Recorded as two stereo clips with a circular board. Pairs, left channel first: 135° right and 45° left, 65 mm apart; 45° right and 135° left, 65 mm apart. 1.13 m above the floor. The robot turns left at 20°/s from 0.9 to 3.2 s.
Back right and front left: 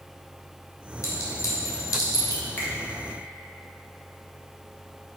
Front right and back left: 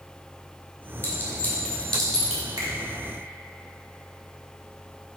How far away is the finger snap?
About 2.0 m.